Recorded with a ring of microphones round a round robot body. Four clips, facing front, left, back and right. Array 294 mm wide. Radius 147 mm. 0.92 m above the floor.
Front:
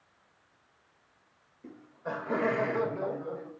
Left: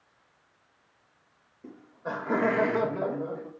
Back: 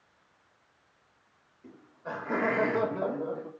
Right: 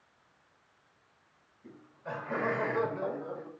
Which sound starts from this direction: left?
Laughter, at 1.6 s.